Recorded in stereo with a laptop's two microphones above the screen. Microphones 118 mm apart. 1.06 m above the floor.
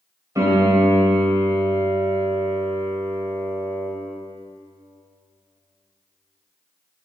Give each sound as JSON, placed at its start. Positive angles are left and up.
{"t": 0.3, "sound": "a piano", "side_deg": -25, "distance_m": 2.0}